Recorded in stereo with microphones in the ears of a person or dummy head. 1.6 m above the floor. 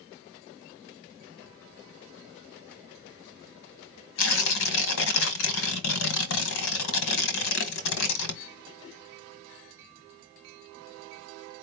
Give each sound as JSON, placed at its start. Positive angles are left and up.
{"t": 4.2, "sound": "tearing paper", "side_deg": 70, "distance_m": 1.3}